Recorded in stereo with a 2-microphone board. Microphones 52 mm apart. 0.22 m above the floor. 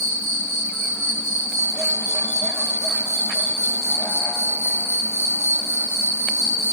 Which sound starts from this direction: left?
An insect, at 0.0 s.